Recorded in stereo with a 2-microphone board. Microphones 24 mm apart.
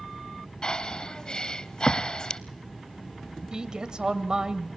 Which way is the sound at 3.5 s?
40° right (ahead or behind).